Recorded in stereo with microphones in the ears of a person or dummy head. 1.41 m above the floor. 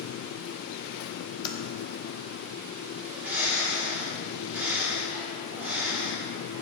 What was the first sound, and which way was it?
Typing on a keyboard, 30° left (ahead or behind).